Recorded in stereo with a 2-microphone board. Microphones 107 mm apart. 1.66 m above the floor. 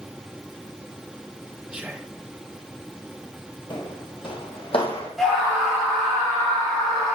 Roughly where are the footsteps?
Left.